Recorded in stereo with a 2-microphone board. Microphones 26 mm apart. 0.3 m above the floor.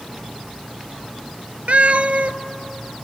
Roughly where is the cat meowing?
Right.